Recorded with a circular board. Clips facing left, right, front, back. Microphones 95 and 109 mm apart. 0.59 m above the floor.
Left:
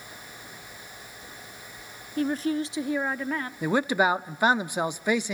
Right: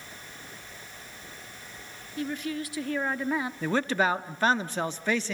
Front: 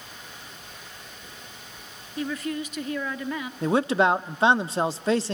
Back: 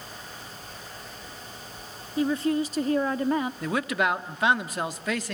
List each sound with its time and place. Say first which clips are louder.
2.2 s a woman speaking: left 6 dB, back 5 dB; 120° left, 1.0 m; by 3.5 s 160° right, 0.8 m
3.6 s a man speaking: left 4 dB, front 5 dB; 25° left, 0.7 m